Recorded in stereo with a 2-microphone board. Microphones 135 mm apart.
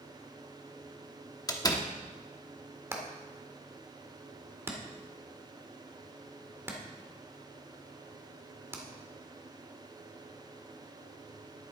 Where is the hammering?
20° right (ahead or behind), 1.6 m.